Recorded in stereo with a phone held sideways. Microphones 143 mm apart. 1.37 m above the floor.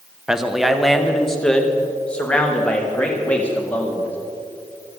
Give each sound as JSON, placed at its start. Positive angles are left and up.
{"t": 0.3, "sound": "a man speaking", "side_deg": -5, "distance_m": 1.2}